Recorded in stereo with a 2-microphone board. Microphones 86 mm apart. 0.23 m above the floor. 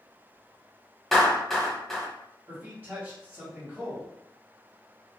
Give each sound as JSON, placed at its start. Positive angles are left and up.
{"t": 1.1, "sound": "a clap", "side_deg": 5, "distance_m": 0.9}
{"t": 2.5, "sound": "a man speaking", "side_deg": -25, "distance_m": 1.2}